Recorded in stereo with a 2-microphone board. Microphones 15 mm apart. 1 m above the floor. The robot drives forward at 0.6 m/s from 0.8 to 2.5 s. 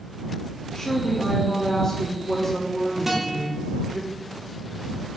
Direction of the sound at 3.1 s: 10° right (ahead or behind).